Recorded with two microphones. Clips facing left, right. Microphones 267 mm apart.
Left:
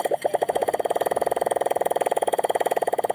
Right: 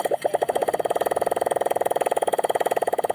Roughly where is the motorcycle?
Centre.